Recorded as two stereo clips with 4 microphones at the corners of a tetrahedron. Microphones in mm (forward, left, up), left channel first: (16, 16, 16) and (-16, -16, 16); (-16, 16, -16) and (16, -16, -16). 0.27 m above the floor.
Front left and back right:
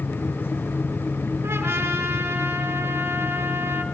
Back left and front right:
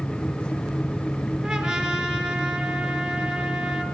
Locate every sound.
1.4 s a trumpet: 125° right, 4 m